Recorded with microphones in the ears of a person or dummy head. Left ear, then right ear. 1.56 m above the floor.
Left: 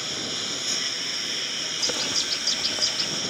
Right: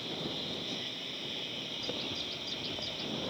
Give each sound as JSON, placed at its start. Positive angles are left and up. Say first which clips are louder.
{"t": 0.0, "sound": "a lawn mower", "louder": "left 8 dB", "side_deg": 60}
{"t": 1.8, "sound": "a bird", "louder": "left 13 dB", "side_deg": 65}